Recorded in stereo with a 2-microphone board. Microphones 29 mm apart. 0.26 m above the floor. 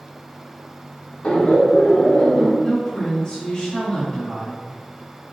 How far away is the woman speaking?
About 1.9 m.